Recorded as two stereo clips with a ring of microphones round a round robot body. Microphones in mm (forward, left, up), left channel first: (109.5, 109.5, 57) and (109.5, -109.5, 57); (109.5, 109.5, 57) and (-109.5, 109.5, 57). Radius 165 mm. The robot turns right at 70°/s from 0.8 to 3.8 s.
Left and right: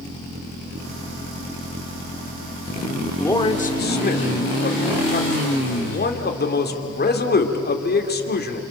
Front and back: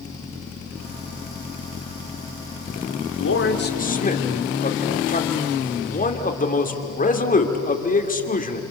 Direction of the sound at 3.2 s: 5° left.